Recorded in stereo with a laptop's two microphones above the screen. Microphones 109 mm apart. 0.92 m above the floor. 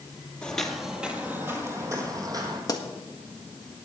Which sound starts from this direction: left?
A pop, at 2.7 s.